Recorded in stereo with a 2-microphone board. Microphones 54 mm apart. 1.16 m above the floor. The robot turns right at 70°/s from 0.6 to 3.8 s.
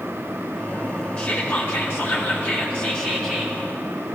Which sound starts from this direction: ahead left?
Whispering, at 1.2 s.